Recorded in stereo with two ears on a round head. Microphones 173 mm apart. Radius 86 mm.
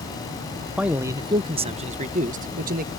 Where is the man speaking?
5° right (ahead or behind); by 2.9 s 45° right (ahead or behind).